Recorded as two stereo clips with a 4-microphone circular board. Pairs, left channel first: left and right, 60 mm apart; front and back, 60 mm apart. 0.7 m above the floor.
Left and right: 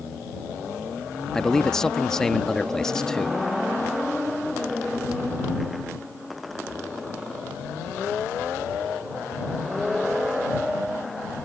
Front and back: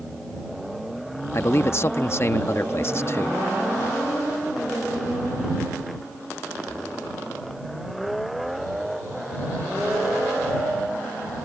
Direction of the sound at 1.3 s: 10° left.